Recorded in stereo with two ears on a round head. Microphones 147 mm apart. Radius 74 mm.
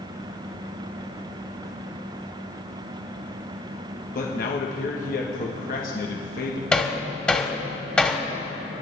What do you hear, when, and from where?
4.2 s a man speaking: 55° left (ahead or behind), 1.3 m
6.7 s hammering: 5° left (ahead or behind), 1.5 m